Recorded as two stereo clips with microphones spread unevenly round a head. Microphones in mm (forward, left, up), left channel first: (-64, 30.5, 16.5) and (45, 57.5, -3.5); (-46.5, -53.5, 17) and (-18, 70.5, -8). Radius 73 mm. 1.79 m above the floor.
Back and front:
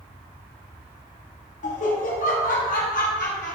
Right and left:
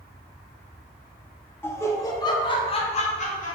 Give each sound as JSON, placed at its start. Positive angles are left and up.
{"t": 1.6, "sound": "laughter", "azimuth_deg": -175, "distance_m": 2.0}